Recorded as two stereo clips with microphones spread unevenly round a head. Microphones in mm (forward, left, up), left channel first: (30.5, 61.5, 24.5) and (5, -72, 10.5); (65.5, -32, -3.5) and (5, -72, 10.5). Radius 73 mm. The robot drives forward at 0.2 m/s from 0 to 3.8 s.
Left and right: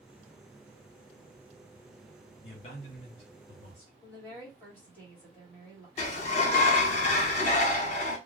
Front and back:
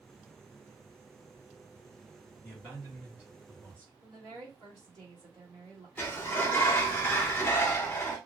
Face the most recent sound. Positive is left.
turn(degrees=85)